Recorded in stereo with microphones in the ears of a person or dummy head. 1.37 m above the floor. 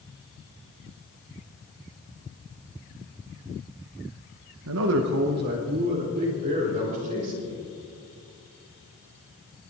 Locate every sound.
4.7 s a man speaking: 75° right (ahead or behind), 0.9 m; by 7.7 s 40° right (ahead or behind), 5.5 m